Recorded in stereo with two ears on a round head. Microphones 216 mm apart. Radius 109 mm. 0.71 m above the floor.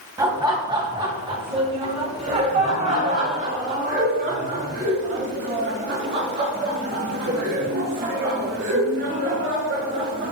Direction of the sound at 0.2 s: 15° right (ahead or behind).